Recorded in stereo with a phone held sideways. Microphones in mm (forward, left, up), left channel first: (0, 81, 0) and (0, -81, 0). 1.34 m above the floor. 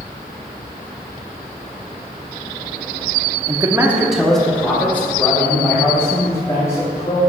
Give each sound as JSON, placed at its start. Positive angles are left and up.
{"t": 3.5, "sound": "a man speaking", "side_deg": -30, "distance_m": 0.7}